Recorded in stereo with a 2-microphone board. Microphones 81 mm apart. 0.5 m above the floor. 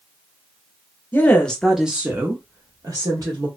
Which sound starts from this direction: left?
A woman speaking, at 1.1 s.